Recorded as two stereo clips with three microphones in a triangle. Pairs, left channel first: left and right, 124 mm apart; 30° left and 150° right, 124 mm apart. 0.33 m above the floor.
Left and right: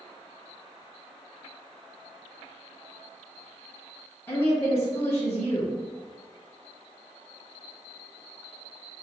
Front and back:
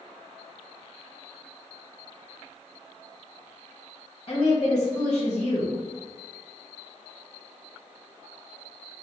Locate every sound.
4.3 s a woman speaking: 25° left, 1.7 m